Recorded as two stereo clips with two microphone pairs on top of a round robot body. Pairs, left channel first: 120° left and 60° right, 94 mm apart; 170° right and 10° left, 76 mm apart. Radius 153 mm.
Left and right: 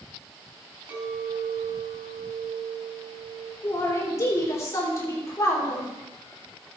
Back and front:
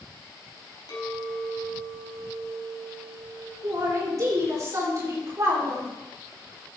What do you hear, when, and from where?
0.9 s a clink: 135° right, 4.5 m
3.6 s a man speaking: 60° left, 3.5 m